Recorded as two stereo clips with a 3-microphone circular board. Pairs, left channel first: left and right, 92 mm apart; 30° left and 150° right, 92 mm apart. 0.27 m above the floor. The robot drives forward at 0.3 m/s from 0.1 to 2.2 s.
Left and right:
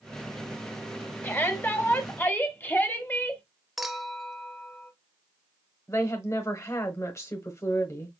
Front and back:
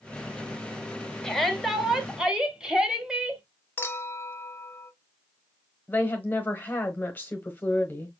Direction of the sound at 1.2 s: 105° left.